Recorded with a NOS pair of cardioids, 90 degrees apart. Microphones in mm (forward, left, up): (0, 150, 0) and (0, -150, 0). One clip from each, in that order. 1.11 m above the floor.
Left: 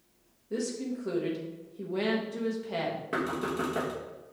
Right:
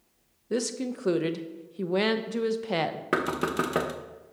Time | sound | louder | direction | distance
0.5 | a woman speaking | right 4 dB | 55° right | 0.8 m
3.1 | knocking | right 6 dB | 55° right | 0.9 m